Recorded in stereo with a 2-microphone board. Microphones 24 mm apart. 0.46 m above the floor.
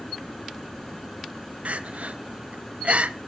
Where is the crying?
75° right (ahead or behind), 1.0 m.